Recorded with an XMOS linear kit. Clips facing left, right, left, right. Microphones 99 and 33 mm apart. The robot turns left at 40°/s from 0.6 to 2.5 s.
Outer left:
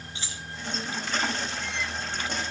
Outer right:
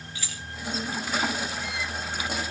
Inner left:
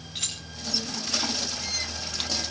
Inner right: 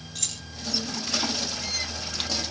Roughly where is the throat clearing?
I don't hear throat clearing.